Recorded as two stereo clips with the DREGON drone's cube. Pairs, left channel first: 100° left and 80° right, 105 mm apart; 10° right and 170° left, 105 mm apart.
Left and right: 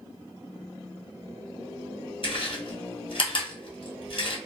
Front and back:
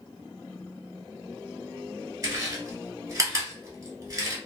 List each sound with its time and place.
2.2 s chewing: 115° left, 1.3 m